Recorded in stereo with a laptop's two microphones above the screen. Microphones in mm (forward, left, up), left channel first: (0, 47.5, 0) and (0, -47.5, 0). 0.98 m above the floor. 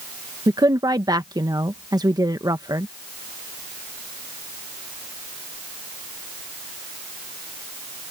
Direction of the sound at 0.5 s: 45° right (ahead or behind).